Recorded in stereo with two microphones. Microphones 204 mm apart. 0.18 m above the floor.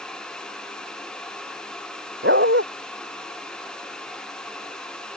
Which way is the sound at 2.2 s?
65° right (ahead or behind).